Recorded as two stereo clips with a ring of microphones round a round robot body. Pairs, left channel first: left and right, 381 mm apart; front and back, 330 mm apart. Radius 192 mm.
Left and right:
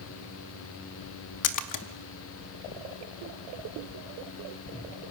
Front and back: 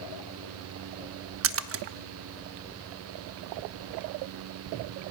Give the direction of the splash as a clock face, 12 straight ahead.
8 o'clock.